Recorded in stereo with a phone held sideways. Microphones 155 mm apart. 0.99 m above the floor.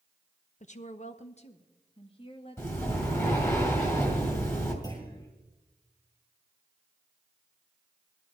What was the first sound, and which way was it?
A woman speaking, 50° left (ahead or behind).